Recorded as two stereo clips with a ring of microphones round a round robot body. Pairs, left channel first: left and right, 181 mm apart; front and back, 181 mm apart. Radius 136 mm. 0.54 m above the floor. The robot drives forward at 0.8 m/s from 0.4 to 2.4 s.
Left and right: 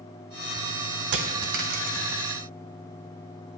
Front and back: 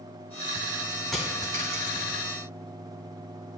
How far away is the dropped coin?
About 0.7 m.